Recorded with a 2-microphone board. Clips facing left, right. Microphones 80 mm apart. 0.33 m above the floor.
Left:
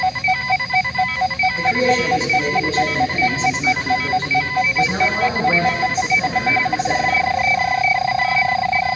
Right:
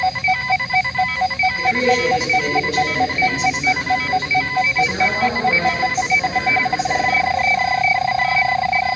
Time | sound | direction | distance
1.6 | a man speaking | 30° left (ahead or behind) | 1.5 m